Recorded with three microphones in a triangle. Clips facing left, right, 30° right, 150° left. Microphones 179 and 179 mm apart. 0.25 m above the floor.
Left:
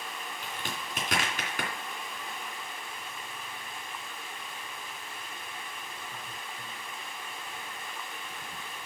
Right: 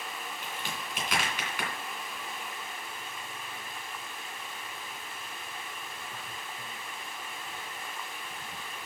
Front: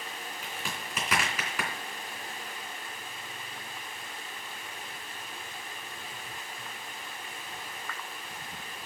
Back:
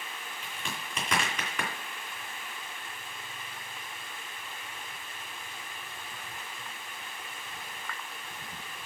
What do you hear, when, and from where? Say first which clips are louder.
0.4 s a crack: left 2 dB, even; 55° left, 2.5 m